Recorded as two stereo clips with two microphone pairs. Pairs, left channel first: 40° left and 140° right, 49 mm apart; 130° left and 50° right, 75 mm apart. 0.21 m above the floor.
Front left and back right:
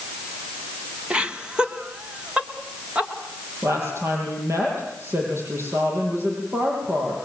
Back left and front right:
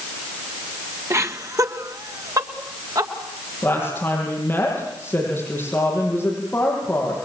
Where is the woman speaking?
165° right, 8 m.